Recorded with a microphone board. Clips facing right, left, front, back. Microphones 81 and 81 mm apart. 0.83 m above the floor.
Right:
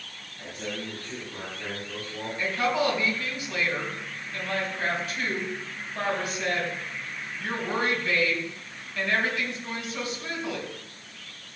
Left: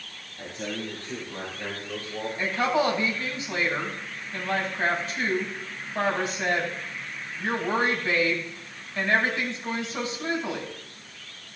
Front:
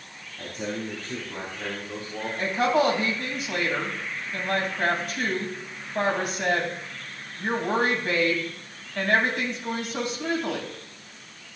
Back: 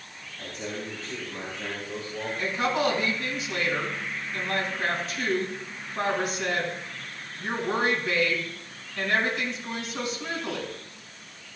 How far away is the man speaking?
About 5 m.